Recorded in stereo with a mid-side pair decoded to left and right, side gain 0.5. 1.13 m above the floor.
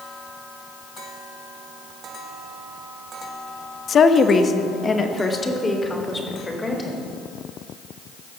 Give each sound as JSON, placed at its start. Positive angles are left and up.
{"t": 3.9, "sound": "a woman speaking", "azimuth_deg": 50, "distance_m": 1.0}